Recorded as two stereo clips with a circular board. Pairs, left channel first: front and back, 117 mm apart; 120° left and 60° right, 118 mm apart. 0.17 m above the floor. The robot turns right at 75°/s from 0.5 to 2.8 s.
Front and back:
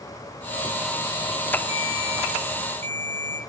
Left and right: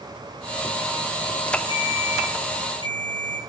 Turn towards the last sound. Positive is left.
turn(degrees=70)